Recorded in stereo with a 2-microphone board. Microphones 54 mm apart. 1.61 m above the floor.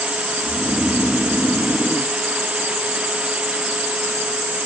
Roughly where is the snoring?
Left.